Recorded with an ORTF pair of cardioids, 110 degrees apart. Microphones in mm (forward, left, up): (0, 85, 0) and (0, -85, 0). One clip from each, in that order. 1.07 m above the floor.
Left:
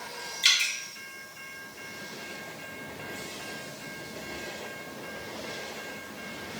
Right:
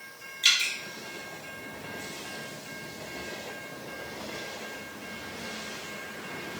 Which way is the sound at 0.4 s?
20° left.